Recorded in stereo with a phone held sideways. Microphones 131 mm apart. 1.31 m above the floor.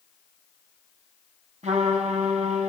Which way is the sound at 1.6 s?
60° right (ahead or behind).